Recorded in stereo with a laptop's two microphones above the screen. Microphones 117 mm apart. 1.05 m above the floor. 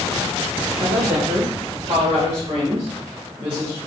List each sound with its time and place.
0.8 s a woman speaking: 55° right (ahead or behind), 1.2 m; by 3.8 s 40° right (ahead or behind), 2.5 m